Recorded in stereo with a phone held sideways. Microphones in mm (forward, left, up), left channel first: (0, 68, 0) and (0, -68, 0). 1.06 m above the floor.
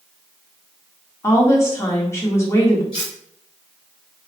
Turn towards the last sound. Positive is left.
turn(degrees=40)  # may be behind; listen again after turning